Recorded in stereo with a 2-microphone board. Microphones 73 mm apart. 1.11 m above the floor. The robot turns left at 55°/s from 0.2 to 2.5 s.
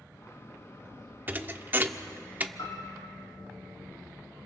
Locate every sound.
1.3 s a thud: 25° right (ahead or behind), 0.7 m; by 2.5 s 20° right (ahead or behind), 0.7 m
2.6 s a piano: 70° left (ahead or behind), 3.5 m